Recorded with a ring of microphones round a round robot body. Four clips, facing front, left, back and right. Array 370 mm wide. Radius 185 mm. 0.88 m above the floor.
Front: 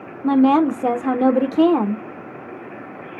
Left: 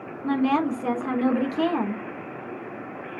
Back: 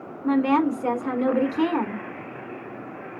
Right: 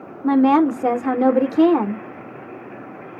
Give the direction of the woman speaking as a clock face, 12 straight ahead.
1 o'clock.